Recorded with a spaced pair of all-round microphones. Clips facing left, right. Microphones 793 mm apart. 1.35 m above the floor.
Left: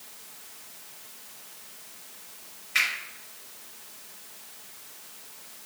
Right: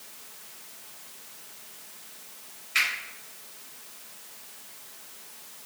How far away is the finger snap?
About 1.4 m.